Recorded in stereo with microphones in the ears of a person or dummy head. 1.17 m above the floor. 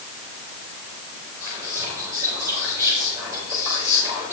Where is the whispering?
10° right (ahead or behind), 2.5 m.